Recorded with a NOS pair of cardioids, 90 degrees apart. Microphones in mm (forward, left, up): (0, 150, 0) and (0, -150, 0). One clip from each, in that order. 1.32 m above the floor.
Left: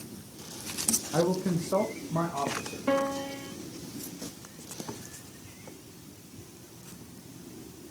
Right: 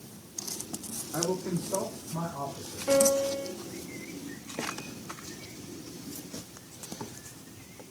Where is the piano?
45° left, 2 m.